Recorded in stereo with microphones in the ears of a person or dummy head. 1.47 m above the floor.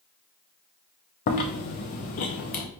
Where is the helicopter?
I don't hear a helicopter.